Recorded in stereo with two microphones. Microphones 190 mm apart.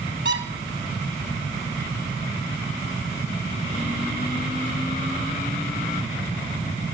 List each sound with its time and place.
0.2 s a squeak: 70° right (ahead or behind), 0.9 m